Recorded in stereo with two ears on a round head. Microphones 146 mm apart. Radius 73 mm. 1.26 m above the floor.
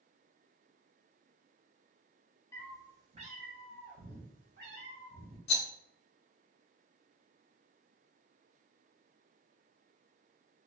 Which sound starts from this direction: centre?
A cat meowing, at 2.5 s.